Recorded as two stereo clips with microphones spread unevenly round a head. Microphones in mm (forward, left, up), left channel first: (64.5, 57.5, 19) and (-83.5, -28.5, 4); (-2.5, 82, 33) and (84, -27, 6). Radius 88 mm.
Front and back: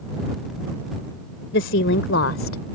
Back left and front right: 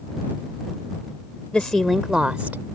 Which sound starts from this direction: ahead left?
A woman speaking, at 1.5 s.